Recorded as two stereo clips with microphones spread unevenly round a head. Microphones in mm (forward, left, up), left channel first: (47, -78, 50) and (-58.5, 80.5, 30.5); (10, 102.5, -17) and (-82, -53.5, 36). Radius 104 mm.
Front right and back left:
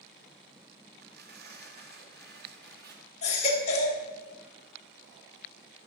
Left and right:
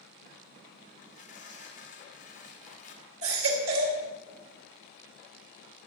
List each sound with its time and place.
1.0 s tearing paper: 95° left, 2 m
3.2 s a baby crying: 115° right, 2 m